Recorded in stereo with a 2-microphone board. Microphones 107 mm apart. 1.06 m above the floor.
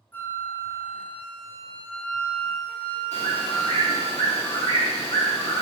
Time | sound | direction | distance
0.1 | a flute | 15° left (ahead or behind) | 0.6 m
3.1 | a bird | 80° left | 1.0 m